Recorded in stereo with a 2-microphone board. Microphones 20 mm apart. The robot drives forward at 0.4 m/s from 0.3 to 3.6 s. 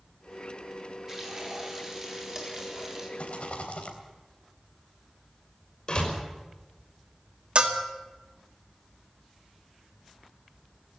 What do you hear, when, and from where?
1.1 s frying: 20° right (ahead or behind), 4.5 m
3.2 s a rattle: 70° left (ahead or behind), 3.5 m; by 4.0 s 65° left (ahead or behind), 3.5 m
5.9 s a door slam: 40° left (ahead or behind), 5.5 m
7.5 s a bell: 55° right (ahead or behind), 2 m